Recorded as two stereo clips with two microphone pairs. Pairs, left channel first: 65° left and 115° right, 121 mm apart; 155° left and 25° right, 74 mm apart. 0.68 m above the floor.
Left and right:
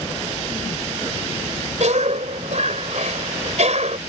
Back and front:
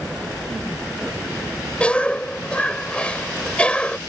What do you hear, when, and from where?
1.8 s a cough: 130° right